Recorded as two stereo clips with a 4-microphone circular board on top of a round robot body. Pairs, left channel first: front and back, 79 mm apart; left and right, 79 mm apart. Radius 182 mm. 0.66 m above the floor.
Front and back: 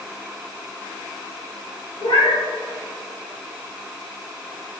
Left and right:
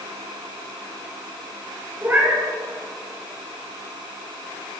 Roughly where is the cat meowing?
Ahead right.